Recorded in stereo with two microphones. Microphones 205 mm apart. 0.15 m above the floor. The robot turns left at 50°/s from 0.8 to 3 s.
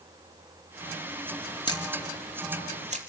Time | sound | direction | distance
1.7 | a camera shutter | 25° left (ahead or behind) | 3.5 m